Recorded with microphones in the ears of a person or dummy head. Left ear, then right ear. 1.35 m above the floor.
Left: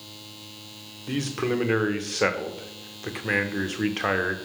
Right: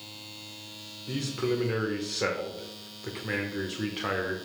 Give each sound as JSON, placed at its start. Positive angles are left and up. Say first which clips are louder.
{"t": 1.1, "sound": "a man speaking", "louder": "left 3 dB", "side_deg": 25, "distance_m": 0.7}